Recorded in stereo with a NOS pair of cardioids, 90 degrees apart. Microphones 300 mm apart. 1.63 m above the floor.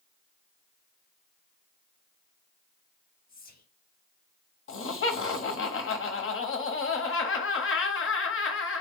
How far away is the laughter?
About 1.0 m.